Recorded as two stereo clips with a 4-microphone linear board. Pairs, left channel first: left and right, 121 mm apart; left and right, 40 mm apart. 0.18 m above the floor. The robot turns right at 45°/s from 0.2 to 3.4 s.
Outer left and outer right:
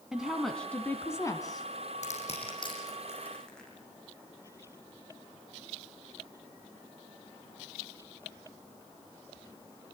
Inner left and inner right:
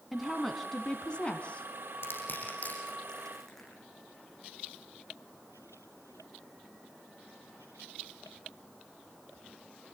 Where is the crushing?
65° left (ahead or behind), 8.5 m; by 3.7 s 5° left (ahead or behind), 8.5 m.